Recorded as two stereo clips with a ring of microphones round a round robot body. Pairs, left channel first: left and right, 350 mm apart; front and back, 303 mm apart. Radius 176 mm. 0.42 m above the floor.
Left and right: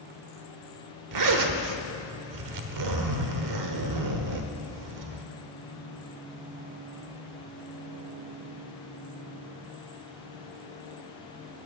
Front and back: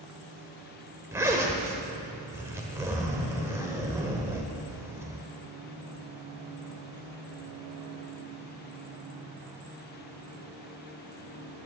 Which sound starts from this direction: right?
A zipper, at 1.1 s.